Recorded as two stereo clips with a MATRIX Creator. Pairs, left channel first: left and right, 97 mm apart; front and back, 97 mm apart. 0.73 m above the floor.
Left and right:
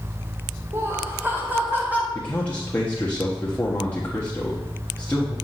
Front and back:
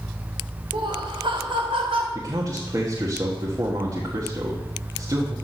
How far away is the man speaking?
About 1.4 m.